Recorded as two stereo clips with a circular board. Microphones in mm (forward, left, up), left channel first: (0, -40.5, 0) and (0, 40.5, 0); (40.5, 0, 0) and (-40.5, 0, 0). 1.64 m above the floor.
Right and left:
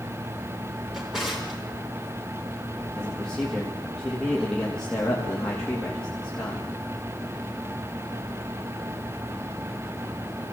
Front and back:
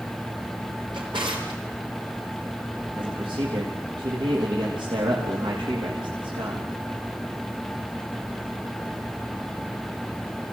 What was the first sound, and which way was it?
A drawer, 175° left.